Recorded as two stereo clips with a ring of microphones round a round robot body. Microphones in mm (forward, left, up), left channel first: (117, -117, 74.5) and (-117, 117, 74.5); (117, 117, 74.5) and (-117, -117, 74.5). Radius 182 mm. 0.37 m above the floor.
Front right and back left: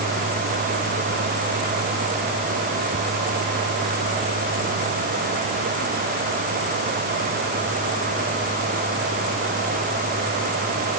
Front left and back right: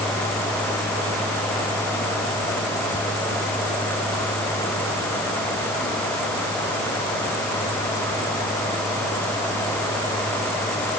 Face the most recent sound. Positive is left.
No sound to turn to.